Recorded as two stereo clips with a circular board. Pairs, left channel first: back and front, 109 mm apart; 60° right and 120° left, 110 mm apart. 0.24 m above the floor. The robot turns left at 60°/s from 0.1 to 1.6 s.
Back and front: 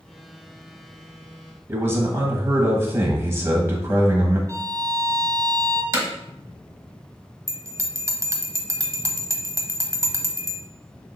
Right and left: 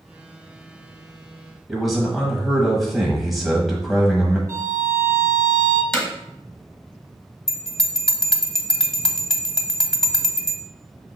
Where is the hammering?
20° left, 1.3 m.